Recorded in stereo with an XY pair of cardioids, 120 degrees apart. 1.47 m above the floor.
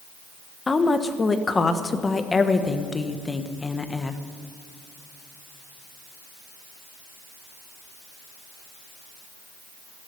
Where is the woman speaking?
20° left, 1.2 m.